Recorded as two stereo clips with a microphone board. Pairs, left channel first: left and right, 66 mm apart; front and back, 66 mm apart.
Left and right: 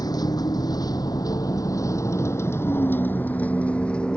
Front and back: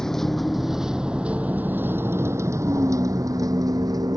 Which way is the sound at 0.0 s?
80° left.